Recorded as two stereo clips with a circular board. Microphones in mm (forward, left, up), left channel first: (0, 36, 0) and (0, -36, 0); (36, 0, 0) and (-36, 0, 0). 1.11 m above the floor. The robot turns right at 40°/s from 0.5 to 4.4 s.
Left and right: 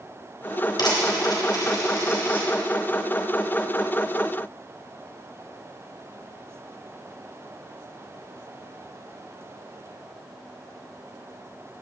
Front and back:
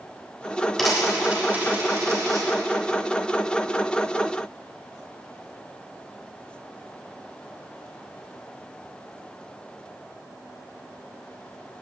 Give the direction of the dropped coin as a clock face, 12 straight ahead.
9 o'clock.